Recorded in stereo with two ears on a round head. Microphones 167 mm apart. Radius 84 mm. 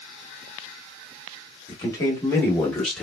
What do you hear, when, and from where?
1.7 s a man speaking: 25° left (ahead or behind), 1.1 m; by 3.0 s centre (ahead or behind), 1.0 m